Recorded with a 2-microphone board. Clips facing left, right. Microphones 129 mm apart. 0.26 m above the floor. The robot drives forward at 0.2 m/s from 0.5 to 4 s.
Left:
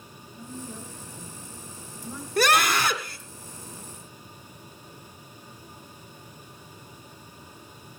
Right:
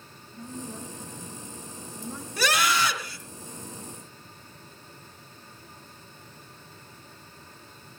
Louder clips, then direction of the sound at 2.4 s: Left 3 dB; 60° left (ahead or behind).